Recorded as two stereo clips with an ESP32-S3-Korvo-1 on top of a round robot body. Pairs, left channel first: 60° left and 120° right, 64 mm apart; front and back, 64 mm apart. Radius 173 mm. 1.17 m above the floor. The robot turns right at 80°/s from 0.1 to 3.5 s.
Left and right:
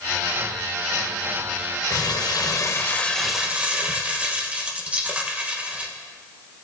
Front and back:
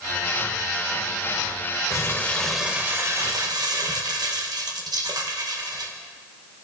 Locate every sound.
1.9 s crumpling: 40° left, 1.2 m; by 5.9 s 170° left, 1.2 m